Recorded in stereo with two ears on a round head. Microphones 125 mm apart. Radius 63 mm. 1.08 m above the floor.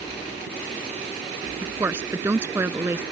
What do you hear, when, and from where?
1.6 s a woman speaking: 15° right (ahead or behind)